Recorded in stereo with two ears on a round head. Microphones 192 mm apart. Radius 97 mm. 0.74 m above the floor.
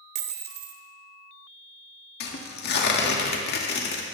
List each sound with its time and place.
0.1 s a dropped coin: 45° right (ahead or behind), 1.4 m
2.2 s tearing paper: 50° left (ahead or behind), 1.7 m